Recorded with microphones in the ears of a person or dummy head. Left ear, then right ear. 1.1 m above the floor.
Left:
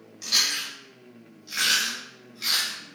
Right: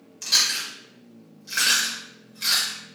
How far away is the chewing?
About 1.8 m.